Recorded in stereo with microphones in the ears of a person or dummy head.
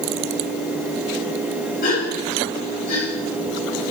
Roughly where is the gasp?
Left.